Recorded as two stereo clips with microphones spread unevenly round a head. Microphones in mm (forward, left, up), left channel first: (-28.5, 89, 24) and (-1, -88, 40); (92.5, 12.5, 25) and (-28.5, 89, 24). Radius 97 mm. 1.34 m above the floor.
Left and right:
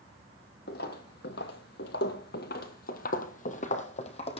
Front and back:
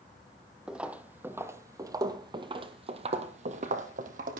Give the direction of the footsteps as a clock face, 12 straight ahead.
10 o'clock.